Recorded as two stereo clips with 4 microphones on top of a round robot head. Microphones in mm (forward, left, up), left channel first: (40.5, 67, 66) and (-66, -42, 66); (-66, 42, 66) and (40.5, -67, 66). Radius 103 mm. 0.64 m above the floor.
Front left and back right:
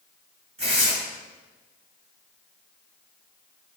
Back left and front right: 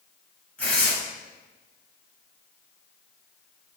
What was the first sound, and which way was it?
Tearing paper, 150° right.